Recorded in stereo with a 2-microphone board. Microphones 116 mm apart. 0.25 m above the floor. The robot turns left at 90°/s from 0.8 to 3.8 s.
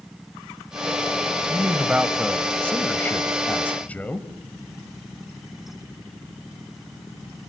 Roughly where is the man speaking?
Centre.